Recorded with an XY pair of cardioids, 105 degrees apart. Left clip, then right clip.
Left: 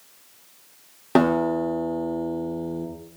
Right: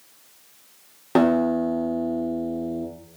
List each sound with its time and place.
1.1 s a guitar: 15° left, 3 m